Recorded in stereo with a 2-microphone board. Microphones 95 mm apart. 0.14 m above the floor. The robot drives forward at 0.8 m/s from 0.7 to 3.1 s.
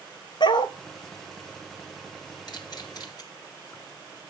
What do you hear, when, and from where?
0.4 s a dog barking: 60° left (ahead or behind), 0.7 m
2.5 s a camera shutter: 50° left (ahead or behind), 2.5 m; by 3.2 s 45° left (ahead or behind), 2.5 m